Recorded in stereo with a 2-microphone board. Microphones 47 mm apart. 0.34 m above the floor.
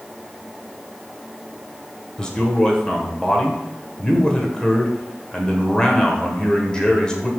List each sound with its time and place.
2.2 s a man speaking: 15° left (ahead or behind), 1.5 m